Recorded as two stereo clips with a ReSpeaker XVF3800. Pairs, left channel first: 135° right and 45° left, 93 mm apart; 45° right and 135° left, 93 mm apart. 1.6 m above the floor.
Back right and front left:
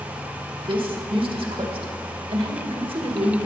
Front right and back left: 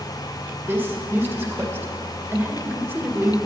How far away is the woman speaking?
About 2 m.